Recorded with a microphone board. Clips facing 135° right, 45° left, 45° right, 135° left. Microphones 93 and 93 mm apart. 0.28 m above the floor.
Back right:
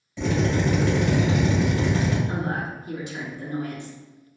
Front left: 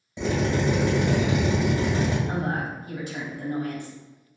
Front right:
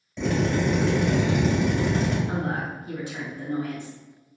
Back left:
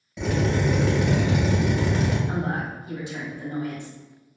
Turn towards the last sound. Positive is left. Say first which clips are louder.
# even, even
turn(degrees=70)